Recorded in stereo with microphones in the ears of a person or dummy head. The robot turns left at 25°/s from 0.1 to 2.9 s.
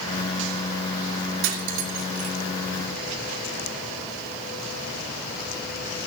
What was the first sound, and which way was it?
Cutlery clinking, 60° right (ahead or behind).